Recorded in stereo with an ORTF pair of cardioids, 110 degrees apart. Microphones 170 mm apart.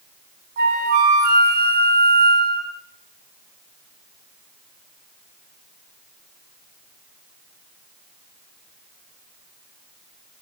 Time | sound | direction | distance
0.6 | a flute | 65° right | 0.6 m